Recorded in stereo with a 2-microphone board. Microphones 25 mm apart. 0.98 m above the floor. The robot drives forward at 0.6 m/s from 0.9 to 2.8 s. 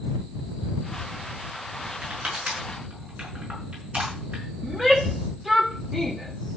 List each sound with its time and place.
2.0 s crushing: 50° right (ahead or behind), 6 m; by 4.4 s 55° right (ahead or behind), 5.5 m
4.6 s a shout: 15° right (ahead or behind), 1.4 m